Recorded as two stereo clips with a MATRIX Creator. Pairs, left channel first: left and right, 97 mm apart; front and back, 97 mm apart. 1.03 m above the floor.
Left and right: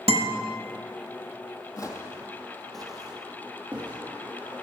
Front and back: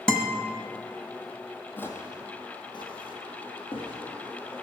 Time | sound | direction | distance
0.1 | a guitar | 80° right | 0.9 m
1.8 | footsteps | 60° left | 1.4 m